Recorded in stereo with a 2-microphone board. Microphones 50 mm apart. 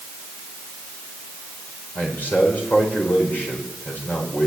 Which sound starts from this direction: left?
A man speaking, at 1.9 s.